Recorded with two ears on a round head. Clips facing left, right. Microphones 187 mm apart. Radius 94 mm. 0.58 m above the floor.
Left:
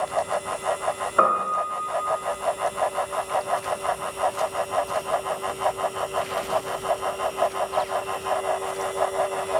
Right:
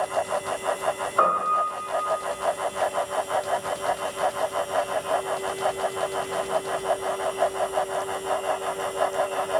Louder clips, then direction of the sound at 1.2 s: Left 3 dB; 30° left (ahead or behind).